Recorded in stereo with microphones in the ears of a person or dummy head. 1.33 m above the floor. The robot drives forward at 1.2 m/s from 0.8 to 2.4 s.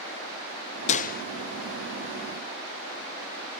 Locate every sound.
0.9 s a gunshot: 40° left (ahead or behind), 0.6 m; by 1.2 s 50° left (ahead or behind), 0.5 m